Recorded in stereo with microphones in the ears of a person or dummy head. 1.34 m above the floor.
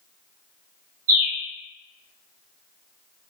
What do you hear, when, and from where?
1.1 s a bird: 80° right, 1.2 m